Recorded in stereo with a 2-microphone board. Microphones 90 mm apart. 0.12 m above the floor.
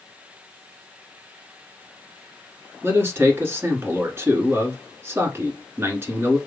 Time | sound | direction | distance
2.8 | a man speaking | 30° right (ahead or behind) | 1.2 m